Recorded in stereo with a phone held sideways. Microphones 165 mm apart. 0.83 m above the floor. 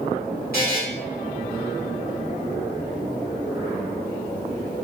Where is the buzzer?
60° left (ahead or behind), 1.8 m.